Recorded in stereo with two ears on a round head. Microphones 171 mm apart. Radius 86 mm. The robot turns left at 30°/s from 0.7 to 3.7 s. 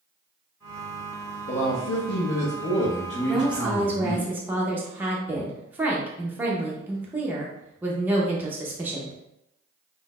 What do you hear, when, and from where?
1.5 s a man speaking: 90° left, 0.8 m; by 4.3 s 20° left, 0.8 m
3.3 s a woman speaking: centre (ahead or behind), 0.7 m; by 9.2 s 10° right (ahead or behind), 0.7 m